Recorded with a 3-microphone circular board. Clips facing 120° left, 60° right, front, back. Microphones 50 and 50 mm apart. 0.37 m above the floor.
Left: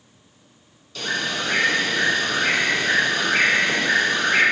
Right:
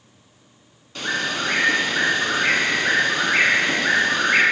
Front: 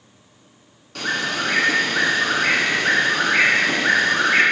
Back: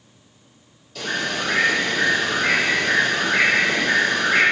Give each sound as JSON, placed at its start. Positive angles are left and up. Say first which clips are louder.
{"t": 0.9, "sound": "a bird", "louder": "right 1 dB, front 2 dB", "azimuth_deg": 0, "distance_m": 1.3}